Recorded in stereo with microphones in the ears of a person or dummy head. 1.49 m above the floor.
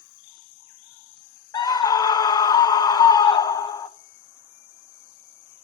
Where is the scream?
20° left (ahead or behind), 0.9 m.